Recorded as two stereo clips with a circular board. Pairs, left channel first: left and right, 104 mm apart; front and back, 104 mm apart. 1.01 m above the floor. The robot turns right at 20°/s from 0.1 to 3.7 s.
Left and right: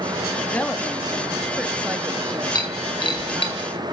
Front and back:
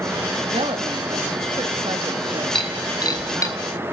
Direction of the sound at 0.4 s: 165° left.